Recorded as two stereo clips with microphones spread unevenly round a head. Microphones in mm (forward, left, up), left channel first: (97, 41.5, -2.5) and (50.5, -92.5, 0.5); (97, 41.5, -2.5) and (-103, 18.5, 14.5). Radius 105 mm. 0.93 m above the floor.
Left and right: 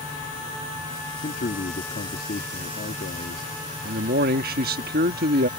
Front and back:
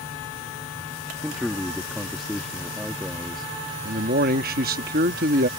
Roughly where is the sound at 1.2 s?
Left.